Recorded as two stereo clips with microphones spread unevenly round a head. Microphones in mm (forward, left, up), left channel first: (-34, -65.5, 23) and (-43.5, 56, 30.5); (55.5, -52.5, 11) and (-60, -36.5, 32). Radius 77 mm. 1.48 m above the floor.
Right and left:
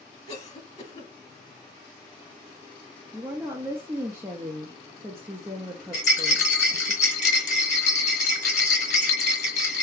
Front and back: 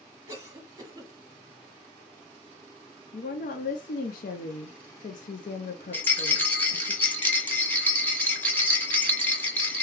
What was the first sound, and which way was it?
A cough, 125° right.